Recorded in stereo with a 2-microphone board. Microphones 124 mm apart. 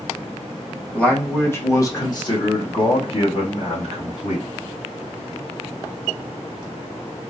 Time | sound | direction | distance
0.9 | a man speaking | 10° left (ahead or behind) | 1.3 m